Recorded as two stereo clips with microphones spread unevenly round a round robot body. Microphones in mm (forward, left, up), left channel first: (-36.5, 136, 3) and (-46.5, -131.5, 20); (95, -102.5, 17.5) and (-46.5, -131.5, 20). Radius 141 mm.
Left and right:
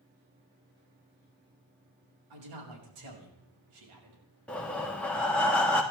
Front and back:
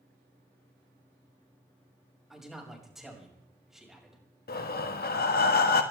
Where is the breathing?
Straight ahead, 1.4 m.